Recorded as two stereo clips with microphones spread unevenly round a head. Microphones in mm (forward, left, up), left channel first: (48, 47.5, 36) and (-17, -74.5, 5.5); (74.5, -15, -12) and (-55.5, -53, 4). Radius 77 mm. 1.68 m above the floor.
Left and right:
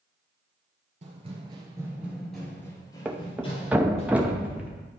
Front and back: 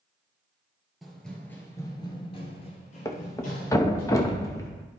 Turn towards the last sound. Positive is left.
turn(degrees=-15)